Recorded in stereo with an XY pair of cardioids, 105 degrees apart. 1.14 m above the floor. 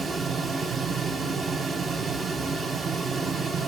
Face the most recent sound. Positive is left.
turn(degrees=-40)